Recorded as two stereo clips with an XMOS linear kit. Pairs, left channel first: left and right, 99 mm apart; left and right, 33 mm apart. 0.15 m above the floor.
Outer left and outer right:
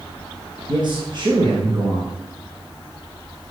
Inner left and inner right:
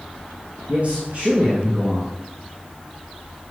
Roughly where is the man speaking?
Right.